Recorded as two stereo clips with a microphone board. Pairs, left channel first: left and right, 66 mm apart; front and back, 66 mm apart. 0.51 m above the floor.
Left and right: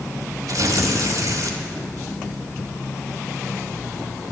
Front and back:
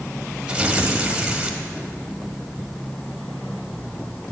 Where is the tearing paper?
105° right, 1.2 m.